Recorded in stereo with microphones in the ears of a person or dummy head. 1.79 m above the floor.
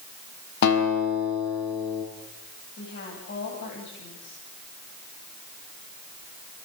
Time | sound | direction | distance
0.6 | a guitar | 60° left (ahead or behind) | 5.5 m
2.8 | a woman speaking | 65° left (ahead or behind) | 9 m